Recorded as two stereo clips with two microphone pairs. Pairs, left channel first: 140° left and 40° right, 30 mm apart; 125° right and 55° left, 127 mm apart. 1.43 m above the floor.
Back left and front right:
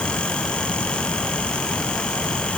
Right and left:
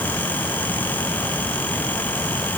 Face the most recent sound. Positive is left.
No sound to turn to.